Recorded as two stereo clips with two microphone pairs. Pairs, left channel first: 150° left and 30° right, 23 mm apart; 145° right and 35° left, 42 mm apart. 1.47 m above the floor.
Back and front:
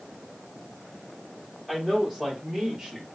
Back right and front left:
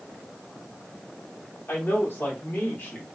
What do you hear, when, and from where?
1.7 s a man speaking: 120° right, 1.9 m; by 3.1 s 105° right, 1.1 m